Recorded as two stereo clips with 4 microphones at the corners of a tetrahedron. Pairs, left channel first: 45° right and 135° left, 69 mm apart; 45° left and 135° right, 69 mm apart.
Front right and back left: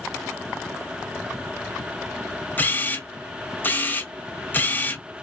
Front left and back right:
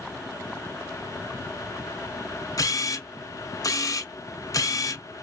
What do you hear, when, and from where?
2.6 s a camera shutter: 15° left, 0.8 m